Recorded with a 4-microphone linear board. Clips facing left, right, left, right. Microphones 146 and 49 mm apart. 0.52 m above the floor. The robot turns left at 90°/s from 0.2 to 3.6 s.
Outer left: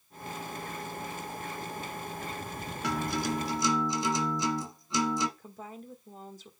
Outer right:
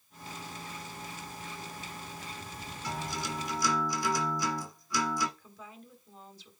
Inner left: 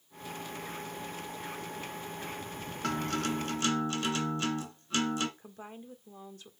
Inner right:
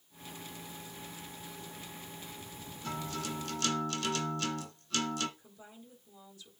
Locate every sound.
2.8 s a guitar: 90° left, 1.8 m; by 5.3 s 25° left, 1.8 m
5.4 s a woman speaking: 45° left (ahead or behind), 1.7 m